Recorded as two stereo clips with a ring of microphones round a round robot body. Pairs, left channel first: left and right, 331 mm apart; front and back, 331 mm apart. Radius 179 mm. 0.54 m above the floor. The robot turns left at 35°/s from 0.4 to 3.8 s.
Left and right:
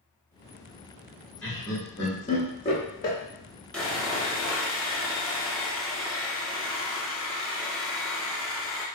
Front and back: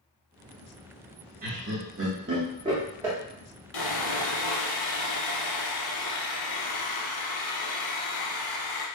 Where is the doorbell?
No doorbell in this recording.